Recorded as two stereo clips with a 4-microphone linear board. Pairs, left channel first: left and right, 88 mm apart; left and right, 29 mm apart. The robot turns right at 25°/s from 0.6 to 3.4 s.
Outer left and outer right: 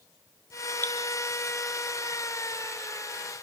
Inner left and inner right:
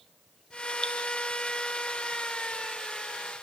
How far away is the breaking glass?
I don't hear breaking glass.